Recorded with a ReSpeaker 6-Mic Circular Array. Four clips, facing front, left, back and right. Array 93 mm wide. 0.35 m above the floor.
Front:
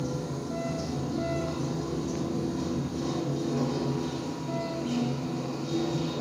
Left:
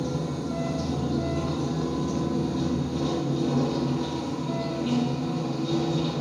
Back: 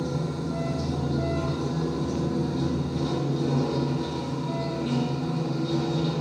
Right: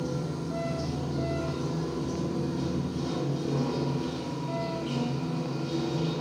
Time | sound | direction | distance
0.0 | running water | 110° left | 4 m